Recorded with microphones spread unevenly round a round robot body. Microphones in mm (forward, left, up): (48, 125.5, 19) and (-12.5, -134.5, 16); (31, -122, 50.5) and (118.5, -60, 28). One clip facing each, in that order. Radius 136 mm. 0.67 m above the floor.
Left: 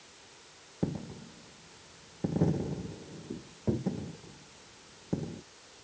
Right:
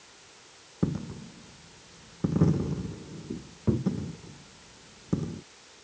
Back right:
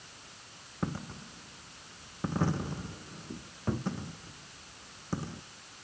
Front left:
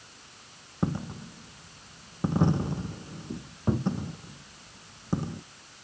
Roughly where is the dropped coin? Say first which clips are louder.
Right 4 dB, front left 6 dB; ahead right.